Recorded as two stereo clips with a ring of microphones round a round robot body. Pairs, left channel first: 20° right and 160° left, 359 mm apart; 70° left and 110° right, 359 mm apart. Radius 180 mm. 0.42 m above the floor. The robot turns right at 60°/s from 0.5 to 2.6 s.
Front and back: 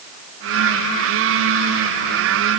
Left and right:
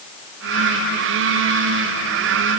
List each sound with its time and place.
Only background noise.